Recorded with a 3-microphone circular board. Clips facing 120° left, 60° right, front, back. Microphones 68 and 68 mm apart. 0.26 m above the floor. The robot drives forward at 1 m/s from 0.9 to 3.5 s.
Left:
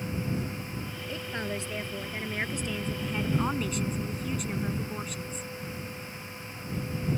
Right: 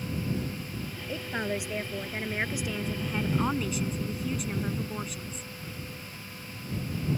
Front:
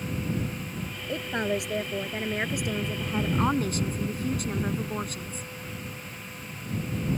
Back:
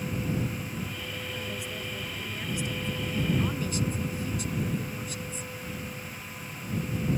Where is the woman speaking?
10° left; by 5.5 s 25° left.